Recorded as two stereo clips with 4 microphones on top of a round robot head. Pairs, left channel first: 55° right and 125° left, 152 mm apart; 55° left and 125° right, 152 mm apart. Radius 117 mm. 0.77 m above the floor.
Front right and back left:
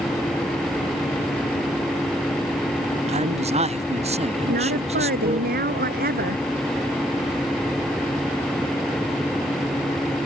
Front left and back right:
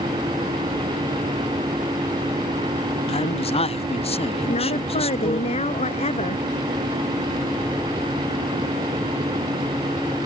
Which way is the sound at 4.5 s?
105° left.